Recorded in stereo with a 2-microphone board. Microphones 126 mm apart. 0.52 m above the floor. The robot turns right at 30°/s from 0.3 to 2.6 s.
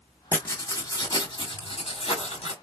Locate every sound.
0.3 s writing: 15° left, 2 m; by 2.5 s 85° left, 2 m